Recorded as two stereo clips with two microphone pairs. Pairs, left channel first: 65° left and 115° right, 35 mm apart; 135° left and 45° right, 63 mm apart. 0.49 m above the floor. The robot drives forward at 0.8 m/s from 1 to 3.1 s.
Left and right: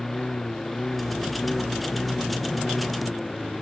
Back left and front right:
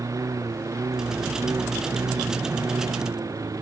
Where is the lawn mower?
20° right.